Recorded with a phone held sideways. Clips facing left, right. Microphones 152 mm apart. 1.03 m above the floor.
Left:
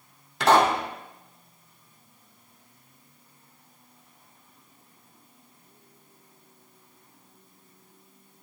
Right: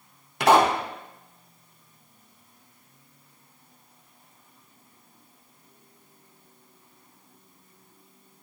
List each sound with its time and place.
0.4 s a pop: 10° right (ahead or behind), 3.5 m